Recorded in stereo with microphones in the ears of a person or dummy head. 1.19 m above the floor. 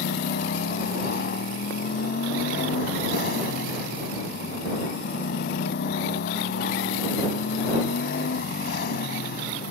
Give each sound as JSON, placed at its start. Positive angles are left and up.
{"t": 0.0, "sound": "a motorcycle", "side_deg": 65}